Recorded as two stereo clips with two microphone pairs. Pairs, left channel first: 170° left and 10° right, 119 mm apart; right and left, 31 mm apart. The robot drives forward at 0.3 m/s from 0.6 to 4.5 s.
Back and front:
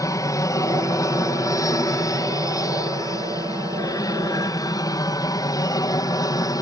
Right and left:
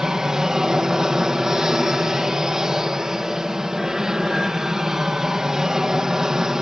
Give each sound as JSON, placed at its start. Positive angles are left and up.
{"t": 0.0, "sound": "an aircraft", "azimuth_deg": 145}